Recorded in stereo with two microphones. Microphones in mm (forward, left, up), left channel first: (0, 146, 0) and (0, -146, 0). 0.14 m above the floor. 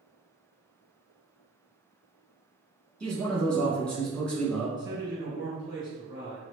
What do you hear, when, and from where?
3.0 s a man speaking: 5° left (ahead or behind), 1.0 m
4.8 s a man speaking: 15° right (ahead or behind), 1.6 m